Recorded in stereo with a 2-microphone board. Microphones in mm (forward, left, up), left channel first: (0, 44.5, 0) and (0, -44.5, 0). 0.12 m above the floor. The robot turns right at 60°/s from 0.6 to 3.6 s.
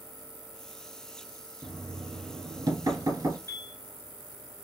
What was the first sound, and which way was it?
Knocking, 165° right.